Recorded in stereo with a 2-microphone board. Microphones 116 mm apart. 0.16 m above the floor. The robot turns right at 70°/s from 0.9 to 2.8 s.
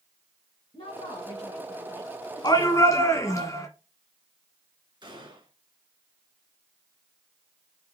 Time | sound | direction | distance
0.7 | a woman speaking | 90° left | 2 m
2.4 | a shout | 40° left (ahead or behind) | 1.6 m
5.0 | a gunshot | 45° right (ahead or behind) | 2.5 m